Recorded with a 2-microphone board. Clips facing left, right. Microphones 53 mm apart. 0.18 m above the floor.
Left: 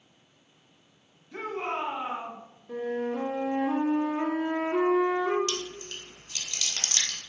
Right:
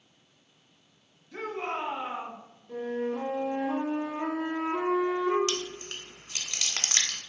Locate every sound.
1.3 s a shout: 20° left (ahead or behind), 1.8 m
2.7 s a flute: 55° left (ahead or behind), 3 m
5.5 s chewing: 40° right (ahead or behind), 1.5 m